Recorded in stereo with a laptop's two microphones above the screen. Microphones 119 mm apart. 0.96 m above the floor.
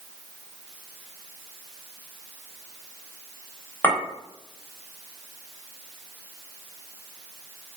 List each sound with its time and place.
3.8 s a clink: 15° left (ahead or behind), 1.1 m